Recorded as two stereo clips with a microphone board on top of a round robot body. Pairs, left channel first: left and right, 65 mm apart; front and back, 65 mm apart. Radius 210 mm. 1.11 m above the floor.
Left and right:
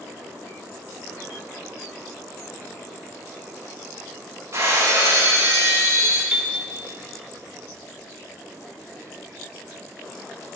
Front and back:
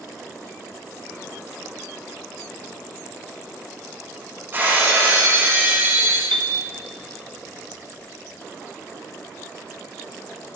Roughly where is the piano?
Behind.